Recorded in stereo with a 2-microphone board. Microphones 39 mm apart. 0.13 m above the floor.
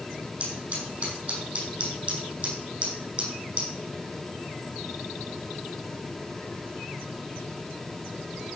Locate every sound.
0.4 s scissors: 40° right (ahead or behind), 5.5 m